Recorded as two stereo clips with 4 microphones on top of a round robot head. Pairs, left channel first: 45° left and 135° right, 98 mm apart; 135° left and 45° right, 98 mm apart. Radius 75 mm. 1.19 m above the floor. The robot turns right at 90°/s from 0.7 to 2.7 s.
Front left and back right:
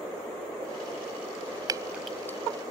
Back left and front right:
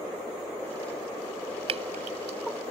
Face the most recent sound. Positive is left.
turn(degrees=10)